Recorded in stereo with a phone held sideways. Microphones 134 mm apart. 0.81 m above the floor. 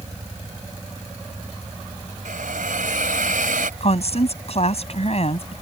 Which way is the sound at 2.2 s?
85° right.